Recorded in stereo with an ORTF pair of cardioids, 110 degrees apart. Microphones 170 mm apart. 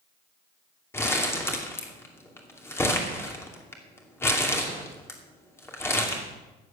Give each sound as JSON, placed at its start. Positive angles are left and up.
{"t": 0.9, "sound": "crumpling", "azimuth_deg": 15, "distance_m": 2.5}